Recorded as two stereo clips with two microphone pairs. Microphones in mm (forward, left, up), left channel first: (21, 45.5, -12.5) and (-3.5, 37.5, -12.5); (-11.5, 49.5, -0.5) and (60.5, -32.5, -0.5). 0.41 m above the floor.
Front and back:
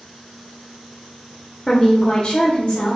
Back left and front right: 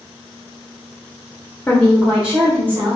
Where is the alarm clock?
I don't hear an alarm clock.